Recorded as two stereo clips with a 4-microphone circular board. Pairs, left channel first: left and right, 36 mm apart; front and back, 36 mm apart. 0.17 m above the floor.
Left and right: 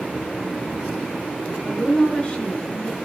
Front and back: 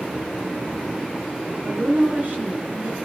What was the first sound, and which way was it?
A woman speaking, 145° left.